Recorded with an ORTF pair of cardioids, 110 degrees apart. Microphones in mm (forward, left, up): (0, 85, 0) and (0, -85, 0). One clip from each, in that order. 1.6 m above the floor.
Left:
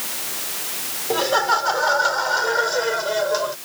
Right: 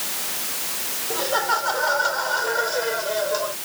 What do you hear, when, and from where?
1.1 s laughter: 55° left; by 3.6 s 50° left